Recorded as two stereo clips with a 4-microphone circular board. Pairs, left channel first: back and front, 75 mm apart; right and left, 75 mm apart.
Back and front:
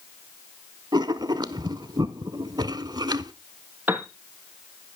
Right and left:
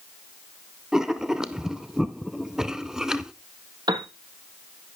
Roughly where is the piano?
Ahead left.